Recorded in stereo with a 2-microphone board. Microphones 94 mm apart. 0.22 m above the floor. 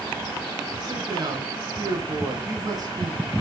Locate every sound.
0.8 s a man speaking: 45° right (ahead or behind), 2 m